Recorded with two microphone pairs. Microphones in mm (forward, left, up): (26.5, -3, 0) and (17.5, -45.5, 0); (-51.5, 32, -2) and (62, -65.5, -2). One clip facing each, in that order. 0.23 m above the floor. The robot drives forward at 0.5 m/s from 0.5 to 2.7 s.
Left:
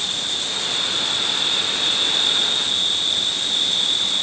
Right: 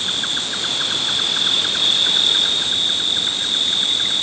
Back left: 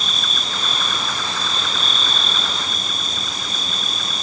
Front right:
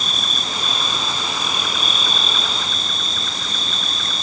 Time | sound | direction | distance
0.0 | an insect | 85° right | 1.0 m